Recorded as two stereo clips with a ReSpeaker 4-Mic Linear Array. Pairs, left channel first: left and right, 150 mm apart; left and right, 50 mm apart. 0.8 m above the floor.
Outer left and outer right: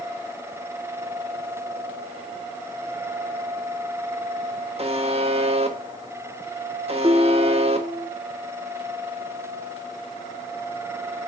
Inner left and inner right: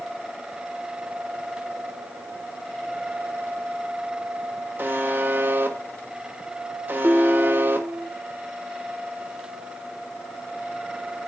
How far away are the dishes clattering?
About 0.9 m.